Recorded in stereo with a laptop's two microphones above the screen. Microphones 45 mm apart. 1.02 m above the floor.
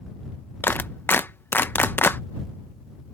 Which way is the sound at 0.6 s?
50° left (ahead or behind).